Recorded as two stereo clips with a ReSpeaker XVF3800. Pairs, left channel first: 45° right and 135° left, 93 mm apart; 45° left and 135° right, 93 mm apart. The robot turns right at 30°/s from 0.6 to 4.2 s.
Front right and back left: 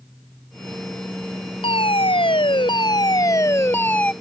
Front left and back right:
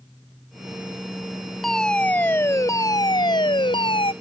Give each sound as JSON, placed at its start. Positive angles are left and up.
{"t": 1.6, "sound": "a fire alarm", "azimuth_deg": -45}